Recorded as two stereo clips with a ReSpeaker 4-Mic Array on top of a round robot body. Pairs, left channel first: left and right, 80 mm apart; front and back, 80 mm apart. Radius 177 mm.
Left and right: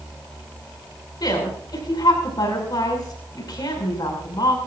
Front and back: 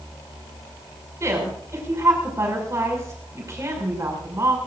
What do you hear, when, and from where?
1.2 s a woman speaking: 125° left, 6 m